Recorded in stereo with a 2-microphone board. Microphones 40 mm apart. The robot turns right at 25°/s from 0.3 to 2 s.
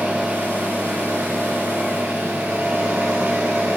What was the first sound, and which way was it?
An engine running, 125° right.